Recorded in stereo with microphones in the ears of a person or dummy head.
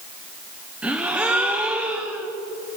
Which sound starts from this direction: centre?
A gasp, at 0.8 s.